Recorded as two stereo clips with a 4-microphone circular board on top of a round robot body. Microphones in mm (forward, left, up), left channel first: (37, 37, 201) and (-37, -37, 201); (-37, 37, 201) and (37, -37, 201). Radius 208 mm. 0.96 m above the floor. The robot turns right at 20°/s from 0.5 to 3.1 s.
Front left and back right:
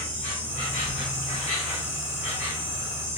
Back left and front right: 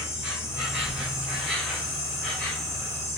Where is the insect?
20° left, 0.8 m; by 3.2 s 70° left, 0.8 m.